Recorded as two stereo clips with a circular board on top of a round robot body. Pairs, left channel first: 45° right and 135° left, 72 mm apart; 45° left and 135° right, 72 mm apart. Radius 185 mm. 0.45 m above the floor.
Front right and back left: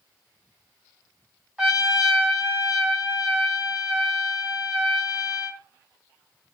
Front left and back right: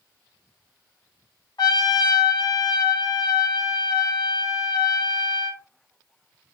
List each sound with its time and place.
1.6 s a trumpet: 55° left, 1.8 m